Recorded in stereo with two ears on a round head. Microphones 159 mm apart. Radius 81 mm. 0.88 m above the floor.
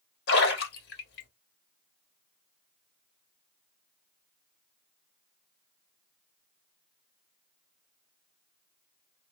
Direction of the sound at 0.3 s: 60° left (ahead or behind).